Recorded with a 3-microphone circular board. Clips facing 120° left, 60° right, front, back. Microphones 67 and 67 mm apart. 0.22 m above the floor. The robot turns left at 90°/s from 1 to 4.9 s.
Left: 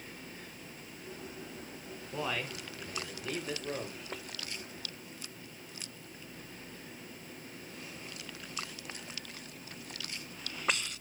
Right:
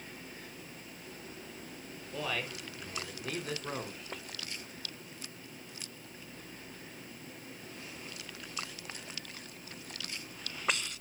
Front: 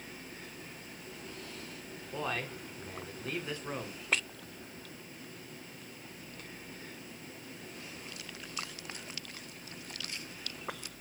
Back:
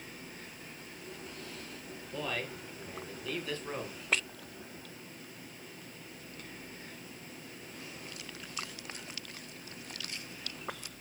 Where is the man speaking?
60° left, 2.5 m; by 4.0 s 105° right, 2.5 m.